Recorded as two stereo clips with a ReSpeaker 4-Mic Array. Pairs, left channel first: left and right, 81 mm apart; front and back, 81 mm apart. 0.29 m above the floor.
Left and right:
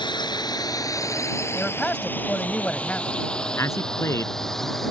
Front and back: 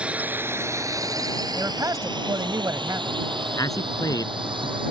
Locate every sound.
0.0 s a drone: 105° left; by 4.9 s straight behind
1.6 s a man speaking: 160° left
3.6 s a man speaking: 40° left